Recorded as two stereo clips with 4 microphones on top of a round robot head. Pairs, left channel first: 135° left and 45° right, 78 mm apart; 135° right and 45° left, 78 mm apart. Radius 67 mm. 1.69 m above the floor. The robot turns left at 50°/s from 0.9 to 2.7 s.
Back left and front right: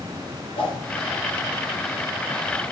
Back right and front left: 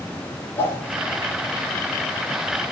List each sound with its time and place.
0.6 s a whoosh: 160° left, 3.5 m